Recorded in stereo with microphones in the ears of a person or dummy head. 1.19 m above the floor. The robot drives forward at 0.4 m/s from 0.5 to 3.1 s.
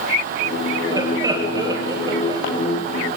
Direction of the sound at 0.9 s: 10° right (ahead or behind).